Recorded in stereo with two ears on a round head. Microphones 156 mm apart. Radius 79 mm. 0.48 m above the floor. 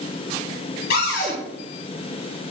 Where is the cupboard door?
70° left (ahead or behind), 1.9 m.